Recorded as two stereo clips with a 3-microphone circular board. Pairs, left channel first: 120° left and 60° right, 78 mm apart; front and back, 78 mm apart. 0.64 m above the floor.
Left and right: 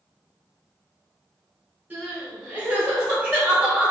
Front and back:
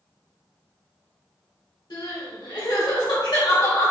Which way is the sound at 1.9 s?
10° left.